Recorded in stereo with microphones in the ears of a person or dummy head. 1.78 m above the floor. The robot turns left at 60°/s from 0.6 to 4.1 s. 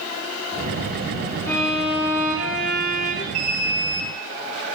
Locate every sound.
1.5 s a violin: 165° left, 3.5 m; by 3.2 s 60° left, 3.5 m
3.3 s an alarm: 45° right, 2 m; by 4.1 s 90° right, 2 m